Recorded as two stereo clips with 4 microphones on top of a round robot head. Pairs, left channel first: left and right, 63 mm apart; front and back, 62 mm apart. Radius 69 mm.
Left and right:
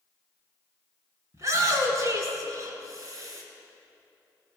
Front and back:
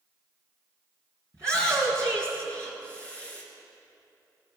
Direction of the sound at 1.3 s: 130° right.